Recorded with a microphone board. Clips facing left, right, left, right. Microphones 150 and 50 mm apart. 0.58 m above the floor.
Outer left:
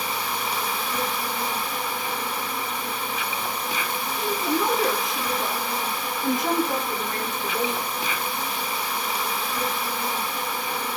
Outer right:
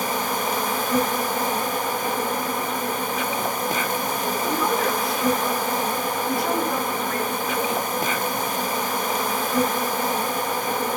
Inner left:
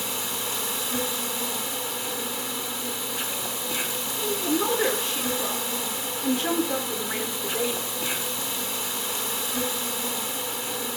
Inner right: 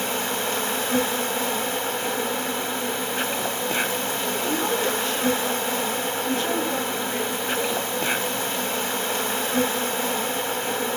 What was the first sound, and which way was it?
An insect, 45° right (ahead or behind).